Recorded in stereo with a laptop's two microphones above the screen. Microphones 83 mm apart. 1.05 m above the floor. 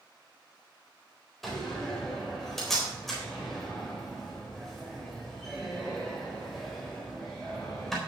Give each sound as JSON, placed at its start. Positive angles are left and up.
{"t": 1.4, "sound": "a door slam", "side_deg": 0, "distance_m": 3.5}